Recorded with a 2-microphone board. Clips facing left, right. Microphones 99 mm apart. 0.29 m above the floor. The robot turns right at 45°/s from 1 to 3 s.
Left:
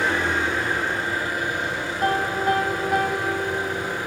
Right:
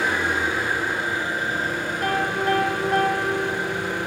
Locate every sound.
0.0 s an engine running: 170° right, 2.5 m; by 4.1 s 80° right, 2.5 m
2.0 s a piano: 130° left, 1.1 m; by 3.7 s 175° left, 1.1 m